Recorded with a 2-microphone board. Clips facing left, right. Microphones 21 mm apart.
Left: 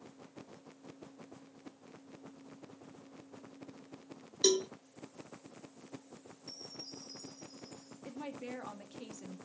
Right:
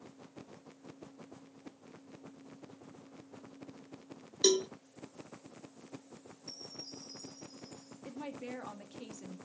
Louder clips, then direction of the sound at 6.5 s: Right 1 dB; 50° right (ahead or behind).